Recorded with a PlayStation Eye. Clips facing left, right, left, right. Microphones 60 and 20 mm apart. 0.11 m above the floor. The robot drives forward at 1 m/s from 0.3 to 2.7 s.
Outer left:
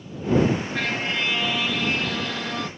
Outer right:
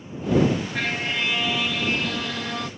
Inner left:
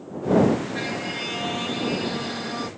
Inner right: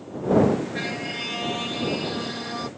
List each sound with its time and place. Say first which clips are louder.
0.8 s a violin: even, inner left 1 dB; 5° right (ahead or behind); by 2.7 s centre (ahead or behind)